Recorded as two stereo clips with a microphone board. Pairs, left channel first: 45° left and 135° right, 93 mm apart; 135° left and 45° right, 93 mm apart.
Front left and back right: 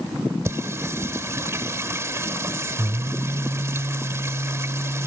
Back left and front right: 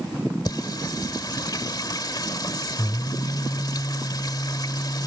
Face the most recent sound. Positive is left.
turn(degrees=170)